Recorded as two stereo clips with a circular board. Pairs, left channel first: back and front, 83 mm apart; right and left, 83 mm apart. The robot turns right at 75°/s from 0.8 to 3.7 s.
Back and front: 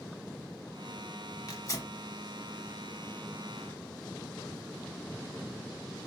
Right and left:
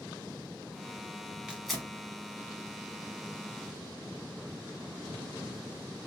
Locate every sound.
1.5 s tearing paper: 165° left, 1.0 m; by 1.9 s 165° right, 1.0 m